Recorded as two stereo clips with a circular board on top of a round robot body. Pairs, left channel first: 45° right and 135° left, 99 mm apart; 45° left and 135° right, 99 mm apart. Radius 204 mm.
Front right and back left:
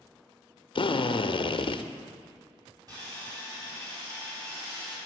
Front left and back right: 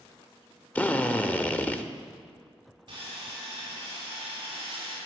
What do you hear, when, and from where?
0.8 s a drill: 25° right, 0.9 m
2.9 s sawing: 175° right, 5 m